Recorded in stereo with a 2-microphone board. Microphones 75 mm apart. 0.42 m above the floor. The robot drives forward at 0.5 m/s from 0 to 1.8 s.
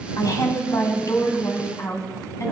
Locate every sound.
0.2 s a woman speaking: 50° left (ahead or behind), 2.5 m; by 2.5 s 40° left (ahead or behind), 3 m